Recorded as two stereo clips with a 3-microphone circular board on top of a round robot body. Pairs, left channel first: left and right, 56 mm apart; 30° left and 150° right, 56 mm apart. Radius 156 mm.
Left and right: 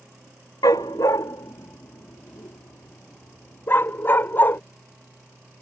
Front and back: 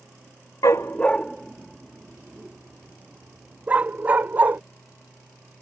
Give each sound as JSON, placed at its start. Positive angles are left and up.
{"t": 0.6, "sound": "a dog barking", "azimuth_deg": 70}